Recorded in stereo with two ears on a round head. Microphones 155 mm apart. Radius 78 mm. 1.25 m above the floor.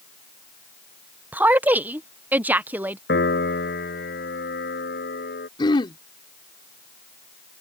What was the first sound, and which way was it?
A woman speaking, 10° right (ahead or behind).